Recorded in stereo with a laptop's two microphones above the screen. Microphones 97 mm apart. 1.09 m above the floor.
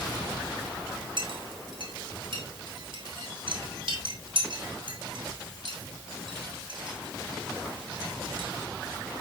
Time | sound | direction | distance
1.2 | a clink | 65° right (ahead or behind) | 5.5 m